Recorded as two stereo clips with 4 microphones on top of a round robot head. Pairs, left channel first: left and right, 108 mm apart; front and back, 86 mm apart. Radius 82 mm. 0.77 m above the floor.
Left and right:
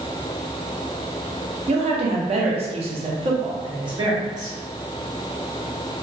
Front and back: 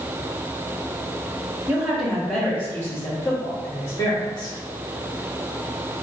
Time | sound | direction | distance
1.7 | a woman speaking | 110° right | 1.0 m